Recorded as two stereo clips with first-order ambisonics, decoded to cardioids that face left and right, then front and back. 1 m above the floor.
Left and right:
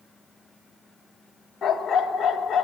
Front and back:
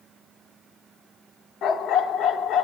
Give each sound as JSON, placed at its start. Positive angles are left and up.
{"t": 1.6, "sound": "a dog barking", "azimuth_deg": 35, "distance_m": 0.8}